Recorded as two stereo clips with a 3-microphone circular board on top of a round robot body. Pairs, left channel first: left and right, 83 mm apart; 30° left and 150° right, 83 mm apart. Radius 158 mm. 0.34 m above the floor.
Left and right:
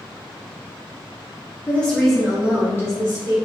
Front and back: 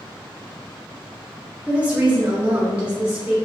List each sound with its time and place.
1.7 s a woman speaking: 145° left, 0.9 m; by 3.4 s 75° right, 1.0 m